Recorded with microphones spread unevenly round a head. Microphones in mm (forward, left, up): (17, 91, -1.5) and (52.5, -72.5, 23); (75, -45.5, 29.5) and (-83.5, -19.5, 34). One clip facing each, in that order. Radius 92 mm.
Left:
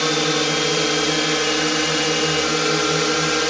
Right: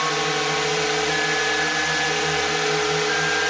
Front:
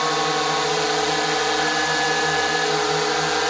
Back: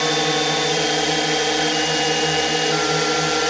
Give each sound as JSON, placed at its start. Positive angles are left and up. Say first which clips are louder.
{"t": 0.0, "sound": "a drone", "louder": "left 4 dB, back 2 dB", "azimuth_deg": 110}